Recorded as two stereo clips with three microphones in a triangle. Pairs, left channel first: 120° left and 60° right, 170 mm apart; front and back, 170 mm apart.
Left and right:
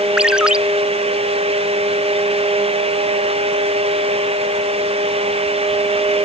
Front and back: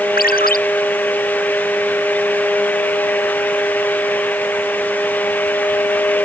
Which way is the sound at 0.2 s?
25° left.